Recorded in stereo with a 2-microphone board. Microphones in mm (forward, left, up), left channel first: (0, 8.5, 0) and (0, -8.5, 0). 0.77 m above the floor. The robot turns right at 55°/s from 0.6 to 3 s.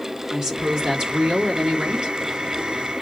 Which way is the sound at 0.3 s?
140° right.